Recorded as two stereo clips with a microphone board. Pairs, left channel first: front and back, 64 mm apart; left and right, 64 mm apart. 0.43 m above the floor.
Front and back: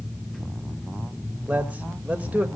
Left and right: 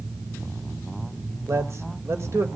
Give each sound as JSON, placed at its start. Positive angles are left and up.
{"t": 1.5, "sound": "a man speaking", "azimuth_deg": -120, "distance_m": 1.6}